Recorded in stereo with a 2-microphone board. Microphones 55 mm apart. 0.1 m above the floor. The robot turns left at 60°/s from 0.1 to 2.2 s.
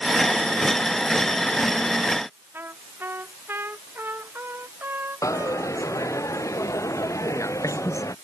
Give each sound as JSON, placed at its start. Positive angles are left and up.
{"t": 2.5, "sound": "a trumpet", "side_deg": -40}
{"t": 5.2, "sound": "a dropped coin", "side_deg": 65}